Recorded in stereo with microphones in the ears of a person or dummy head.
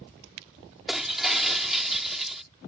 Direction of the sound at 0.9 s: 5° right (ahead or behind).